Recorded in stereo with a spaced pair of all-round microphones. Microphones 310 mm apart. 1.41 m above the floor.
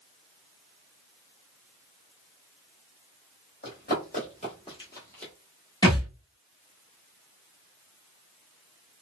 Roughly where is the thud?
Centre.